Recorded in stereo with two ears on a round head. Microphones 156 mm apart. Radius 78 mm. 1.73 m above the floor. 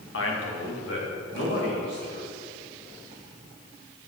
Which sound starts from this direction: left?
A man speaking, at 0.1 s.